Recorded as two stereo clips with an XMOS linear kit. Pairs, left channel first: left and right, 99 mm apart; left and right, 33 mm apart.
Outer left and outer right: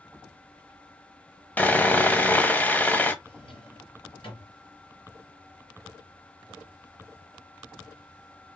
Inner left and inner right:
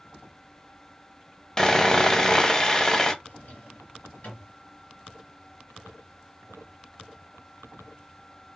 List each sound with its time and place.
1.6 s sawing: 20° left (ahead or behind), 0.8 m
3.2 s a drawer: 80° left, 2.5 m